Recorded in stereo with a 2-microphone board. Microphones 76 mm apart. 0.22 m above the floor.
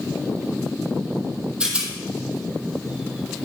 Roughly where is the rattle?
Centre.